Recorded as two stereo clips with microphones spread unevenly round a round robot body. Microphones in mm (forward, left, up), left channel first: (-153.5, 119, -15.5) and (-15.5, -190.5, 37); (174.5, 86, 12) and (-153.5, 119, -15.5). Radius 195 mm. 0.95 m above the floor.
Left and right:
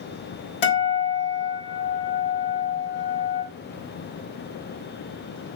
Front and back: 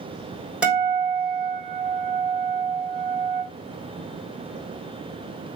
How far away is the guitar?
About 3.5 m.